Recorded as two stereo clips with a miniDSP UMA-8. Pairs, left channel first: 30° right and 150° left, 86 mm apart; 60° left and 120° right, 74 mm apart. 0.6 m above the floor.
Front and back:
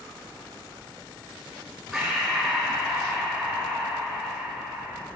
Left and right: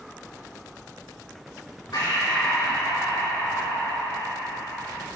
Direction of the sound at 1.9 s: 60° left.